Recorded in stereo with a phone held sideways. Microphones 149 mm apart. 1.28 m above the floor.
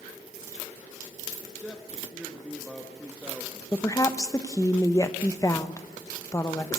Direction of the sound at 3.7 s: 20° left (ahead or behind).